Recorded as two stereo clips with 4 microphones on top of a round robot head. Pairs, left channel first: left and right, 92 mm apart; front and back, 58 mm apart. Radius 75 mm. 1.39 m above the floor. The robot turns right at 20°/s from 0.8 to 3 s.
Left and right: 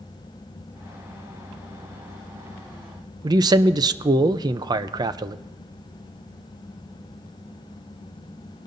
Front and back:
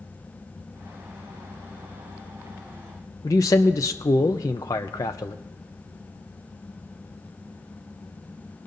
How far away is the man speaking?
About 0.6 m.